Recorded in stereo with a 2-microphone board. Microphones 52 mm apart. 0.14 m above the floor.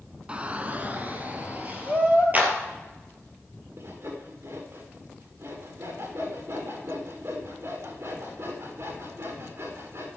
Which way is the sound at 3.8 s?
60° right (ahead or behind).